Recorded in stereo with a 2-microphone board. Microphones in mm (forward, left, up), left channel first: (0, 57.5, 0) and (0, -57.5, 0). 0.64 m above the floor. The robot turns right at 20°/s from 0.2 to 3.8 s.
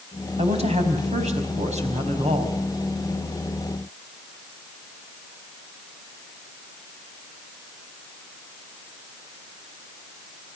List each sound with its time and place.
0.4 s a woman speaking: 110° right, 4.5 m; by 2.5 s 70° right, 4.5 m